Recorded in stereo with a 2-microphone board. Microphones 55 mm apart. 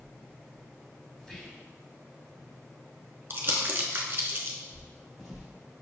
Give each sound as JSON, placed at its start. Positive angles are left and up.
{"t": 1.2, "sound": "whispering", "side_deg": 15, "distance_m": 1.0}
{"t": 3.3, "sound": "crumpling", "side_deg": -40, "distance_m": 0.7}
{"t": 4.7, "sound": "footsteps", "side_deg": 5, "distance_m": 1.1}